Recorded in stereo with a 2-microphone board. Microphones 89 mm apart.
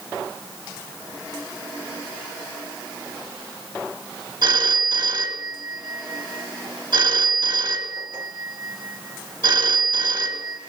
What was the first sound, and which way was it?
A phone ringing, 55° right (ahead or behind).